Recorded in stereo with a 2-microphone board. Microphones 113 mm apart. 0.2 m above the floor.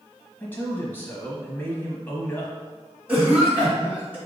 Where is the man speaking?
15° left (ahead or behind), 1.0 m.